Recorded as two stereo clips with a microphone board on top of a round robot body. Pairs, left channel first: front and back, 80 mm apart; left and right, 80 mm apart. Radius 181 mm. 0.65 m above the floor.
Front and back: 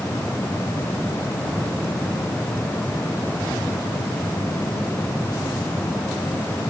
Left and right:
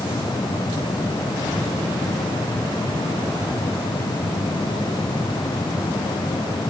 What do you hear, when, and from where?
Only background noise.